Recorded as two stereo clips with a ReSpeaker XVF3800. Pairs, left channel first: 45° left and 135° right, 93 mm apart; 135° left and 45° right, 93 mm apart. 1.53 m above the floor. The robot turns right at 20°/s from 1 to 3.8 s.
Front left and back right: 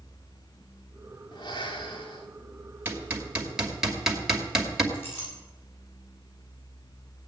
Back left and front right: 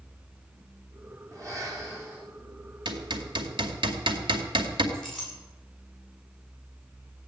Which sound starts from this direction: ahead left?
A clink, at 4.9 s.